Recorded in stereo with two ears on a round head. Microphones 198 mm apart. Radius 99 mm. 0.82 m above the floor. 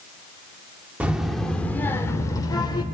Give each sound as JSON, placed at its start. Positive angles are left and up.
{"t": 1.0, "sound": "a child speaking", "side_deg": -5, "distance_m": 1.6}